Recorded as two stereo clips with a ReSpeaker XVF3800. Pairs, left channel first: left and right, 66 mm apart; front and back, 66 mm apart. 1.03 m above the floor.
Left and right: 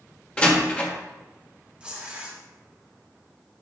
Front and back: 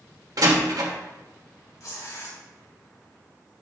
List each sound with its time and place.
0.4 s a door slam: 160° left, 1.4 m
1.8 s tearing paper: 20° right, 1.7 m